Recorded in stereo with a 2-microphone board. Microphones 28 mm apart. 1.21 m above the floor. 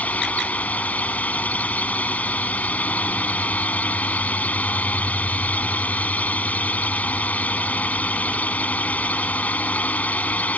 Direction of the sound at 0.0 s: 65° left (ahead or behind).